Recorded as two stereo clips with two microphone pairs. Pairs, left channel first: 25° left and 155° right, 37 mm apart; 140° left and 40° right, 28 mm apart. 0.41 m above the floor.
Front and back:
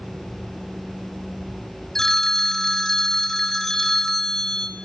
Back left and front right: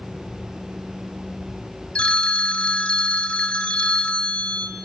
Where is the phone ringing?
105° left, 0.9 m.